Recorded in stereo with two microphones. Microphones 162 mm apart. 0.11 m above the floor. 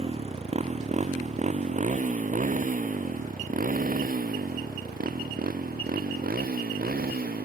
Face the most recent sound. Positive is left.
turn(degrees=-70)  # may be behind; listen again after turning